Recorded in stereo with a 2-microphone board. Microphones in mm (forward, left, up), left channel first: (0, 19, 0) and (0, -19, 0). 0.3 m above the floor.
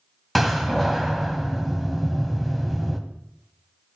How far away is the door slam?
About 1.3 m.